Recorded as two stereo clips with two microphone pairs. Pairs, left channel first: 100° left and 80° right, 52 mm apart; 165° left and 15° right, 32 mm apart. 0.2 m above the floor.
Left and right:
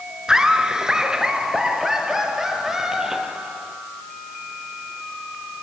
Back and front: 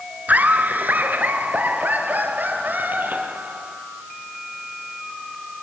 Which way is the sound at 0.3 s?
Straight ahead.